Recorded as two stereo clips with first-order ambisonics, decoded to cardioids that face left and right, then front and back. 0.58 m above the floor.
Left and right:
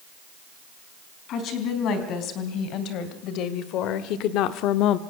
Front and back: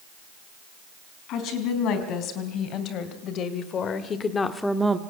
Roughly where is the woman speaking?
Ahead left.